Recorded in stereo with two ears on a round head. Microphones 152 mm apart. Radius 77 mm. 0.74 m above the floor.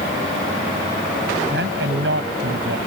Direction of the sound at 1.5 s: 75° right (ahead or behind).